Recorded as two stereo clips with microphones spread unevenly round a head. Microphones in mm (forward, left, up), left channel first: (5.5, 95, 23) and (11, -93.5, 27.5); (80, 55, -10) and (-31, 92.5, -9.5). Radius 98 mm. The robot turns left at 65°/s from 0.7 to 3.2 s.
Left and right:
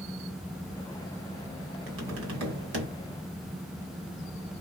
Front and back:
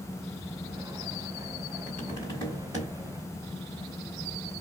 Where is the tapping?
60° right, 2 m; by 2.9 s 130° right, 2 m.